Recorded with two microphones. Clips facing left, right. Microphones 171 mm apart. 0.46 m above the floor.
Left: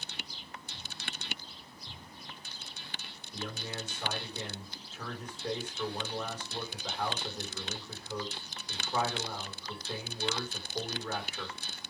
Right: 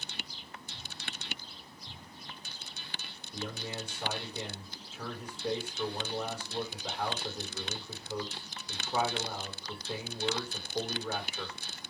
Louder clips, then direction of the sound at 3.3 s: Right 1 dB; 10° right (ahead or behind).